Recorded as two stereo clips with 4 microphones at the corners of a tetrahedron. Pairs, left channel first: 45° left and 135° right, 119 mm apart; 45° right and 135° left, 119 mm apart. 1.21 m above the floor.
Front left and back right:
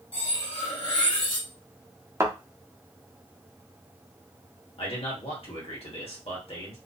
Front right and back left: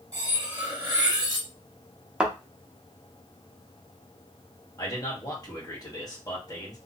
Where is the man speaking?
10° left, 1.6 m.